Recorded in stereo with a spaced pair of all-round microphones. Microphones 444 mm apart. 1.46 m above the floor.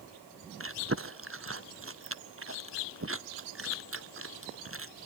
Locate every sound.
0.6 s chewing: 30° right (ahead or behind), 0.6 m